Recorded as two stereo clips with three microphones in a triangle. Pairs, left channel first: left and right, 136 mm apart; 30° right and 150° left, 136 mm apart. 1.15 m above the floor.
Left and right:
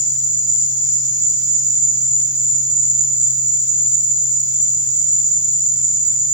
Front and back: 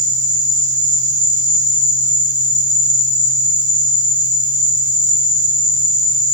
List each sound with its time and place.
0.0 s an insect: 125° left, 2 m